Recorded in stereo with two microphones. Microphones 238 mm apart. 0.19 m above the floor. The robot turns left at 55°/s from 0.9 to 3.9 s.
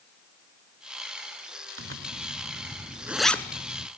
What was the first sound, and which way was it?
A zipper, 65° right (ahead or behind).